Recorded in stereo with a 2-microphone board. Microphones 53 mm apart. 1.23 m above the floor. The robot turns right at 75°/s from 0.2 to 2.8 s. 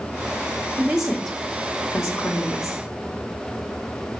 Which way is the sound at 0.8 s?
30° right (ahead or behind).